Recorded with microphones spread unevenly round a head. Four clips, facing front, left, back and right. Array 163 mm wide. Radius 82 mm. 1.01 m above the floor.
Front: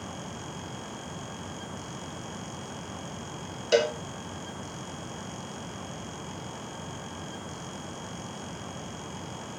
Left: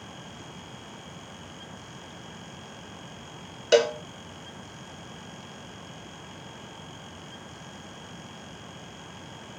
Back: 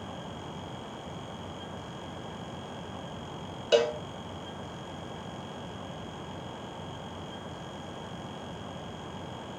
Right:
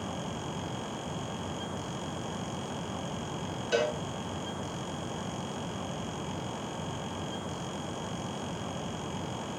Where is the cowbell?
95° left, 1.1 m.